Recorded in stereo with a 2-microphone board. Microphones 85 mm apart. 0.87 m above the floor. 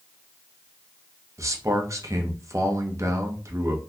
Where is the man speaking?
40° right (ahead or behind), 0.8 m.